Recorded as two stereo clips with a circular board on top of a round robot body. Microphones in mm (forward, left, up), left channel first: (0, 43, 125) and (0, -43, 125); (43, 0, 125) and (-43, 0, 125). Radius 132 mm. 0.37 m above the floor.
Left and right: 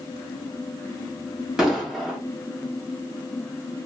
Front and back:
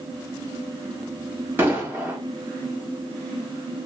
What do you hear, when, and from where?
1.6 s an explosion: 165° right, 1.4 m